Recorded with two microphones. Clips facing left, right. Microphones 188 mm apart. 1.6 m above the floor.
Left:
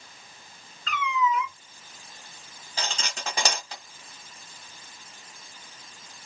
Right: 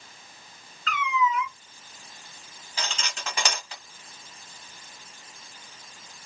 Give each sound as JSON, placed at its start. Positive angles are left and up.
{"t": 0.9, "sound": "a cat meowing", "side_deg": 30, "distance_m": 2.0}
{"t": 2.8, "sound": "cutlery clinking", "side_deg": 40, "distance_m": 1.4}